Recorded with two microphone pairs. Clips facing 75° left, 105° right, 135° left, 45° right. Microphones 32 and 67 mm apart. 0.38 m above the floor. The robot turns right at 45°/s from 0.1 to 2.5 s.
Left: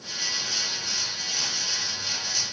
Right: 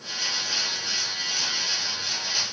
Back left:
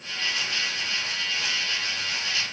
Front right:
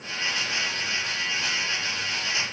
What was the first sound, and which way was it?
Only background noise.